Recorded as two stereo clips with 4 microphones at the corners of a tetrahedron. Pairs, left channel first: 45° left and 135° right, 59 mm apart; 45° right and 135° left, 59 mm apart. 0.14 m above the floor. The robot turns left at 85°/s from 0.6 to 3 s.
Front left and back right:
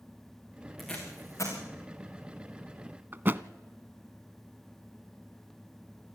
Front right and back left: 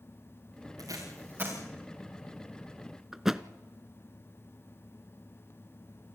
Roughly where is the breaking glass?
No breaking glass in this recording.